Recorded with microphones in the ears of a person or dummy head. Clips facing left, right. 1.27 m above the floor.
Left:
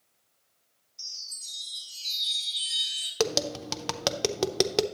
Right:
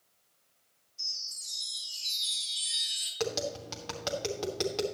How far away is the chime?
About 3 m.